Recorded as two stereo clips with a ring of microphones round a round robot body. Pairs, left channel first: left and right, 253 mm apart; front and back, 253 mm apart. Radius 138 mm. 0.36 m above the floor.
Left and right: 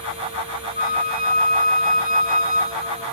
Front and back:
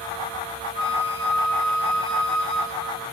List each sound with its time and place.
0.8 s a flute: 35° right, 1.6 m